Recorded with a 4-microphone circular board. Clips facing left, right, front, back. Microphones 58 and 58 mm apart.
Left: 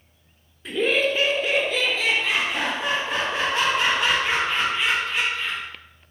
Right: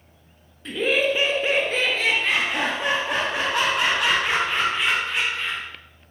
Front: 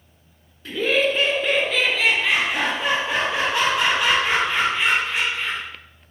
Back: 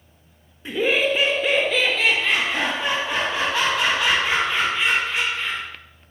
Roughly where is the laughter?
Behind.